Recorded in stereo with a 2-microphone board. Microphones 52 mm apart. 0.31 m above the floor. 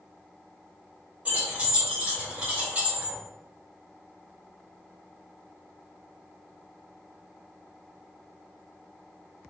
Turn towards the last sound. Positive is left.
turn(degrees=-30)  # may be behind; listen again after turning